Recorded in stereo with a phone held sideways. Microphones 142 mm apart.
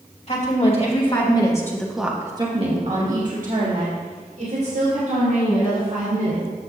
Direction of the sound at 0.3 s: 50° left (ahead or behind).